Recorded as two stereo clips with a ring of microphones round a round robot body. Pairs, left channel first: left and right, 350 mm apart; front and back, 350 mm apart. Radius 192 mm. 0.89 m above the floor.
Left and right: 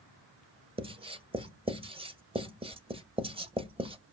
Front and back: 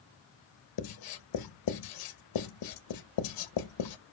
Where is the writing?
15° right, 1.0 m.